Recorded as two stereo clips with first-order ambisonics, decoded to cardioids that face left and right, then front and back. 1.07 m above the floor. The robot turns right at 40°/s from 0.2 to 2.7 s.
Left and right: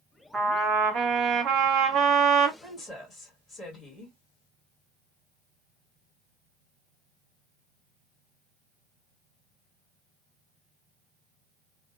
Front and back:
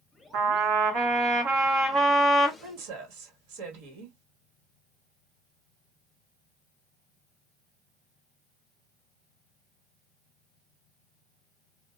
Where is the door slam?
I don't hear a door slam.